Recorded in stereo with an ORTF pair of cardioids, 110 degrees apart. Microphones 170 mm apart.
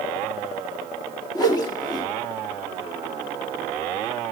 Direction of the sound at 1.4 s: 25° left.